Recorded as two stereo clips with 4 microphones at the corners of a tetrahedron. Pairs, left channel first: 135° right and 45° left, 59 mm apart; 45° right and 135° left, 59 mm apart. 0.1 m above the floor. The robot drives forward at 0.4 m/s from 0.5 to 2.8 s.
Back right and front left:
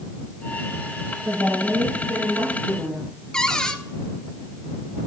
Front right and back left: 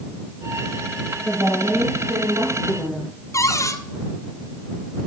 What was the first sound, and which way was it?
A woman speaking, 90° left.